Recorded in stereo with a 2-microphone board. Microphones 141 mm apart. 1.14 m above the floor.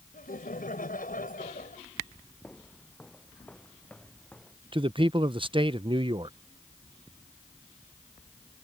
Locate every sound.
0.1 s laughter: 85° left
2.4 s footsteps: 10° left (ahead or behind)
4.7 s a man speaking: 35° right (ahead or behind)